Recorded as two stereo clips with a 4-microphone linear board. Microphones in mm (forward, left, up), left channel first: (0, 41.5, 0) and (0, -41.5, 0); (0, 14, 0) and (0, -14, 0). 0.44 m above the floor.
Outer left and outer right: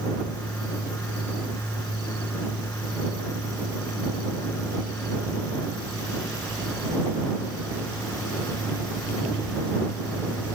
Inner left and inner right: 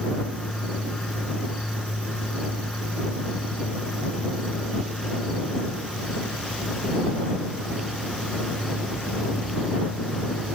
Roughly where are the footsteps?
I don't hear footsteps.